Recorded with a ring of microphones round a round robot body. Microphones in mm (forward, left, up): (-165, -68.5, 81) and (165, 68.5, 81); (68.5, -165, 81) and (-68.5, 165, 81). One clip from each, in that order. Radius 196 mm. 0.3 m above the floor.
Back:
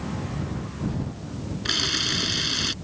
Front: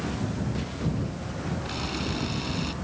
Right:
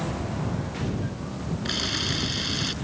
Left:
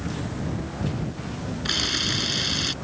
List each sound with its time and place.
1.6 s a camera shutter: 175° right